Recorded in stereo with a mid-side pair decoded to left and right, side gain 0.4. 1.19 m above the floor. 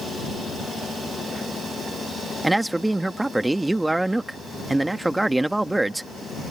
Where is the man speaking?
5° right.